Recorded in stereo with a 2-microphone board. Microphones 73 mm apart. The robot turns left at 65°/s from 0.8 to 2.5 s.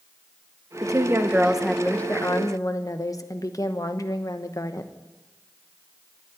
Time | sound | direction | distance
0.8 | a woman speaking | 125° right | 1.0 m